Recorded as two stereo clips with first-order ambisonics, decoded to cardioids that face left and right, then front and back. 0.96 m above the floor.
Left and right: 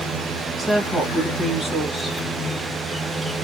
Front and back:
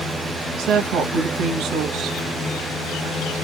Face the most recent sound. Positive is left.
turn(degrees=-175)